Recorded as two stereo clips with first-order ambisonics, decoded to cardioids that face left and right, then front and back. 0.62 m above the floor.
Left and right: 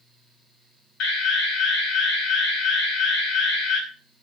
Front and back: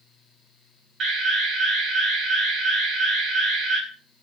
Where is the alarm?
120° left, 4 m.